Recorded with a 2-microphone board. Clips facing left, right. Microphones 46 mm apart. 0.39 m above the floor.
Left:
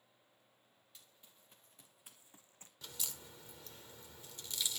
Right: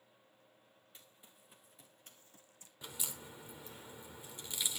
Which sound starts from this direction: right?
Running footsteps, at 0.9 s.